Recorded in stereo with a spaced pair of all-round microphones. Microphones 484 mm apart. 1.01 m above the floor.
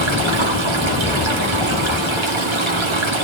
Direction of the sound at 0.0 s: 70° right (ahead or behind).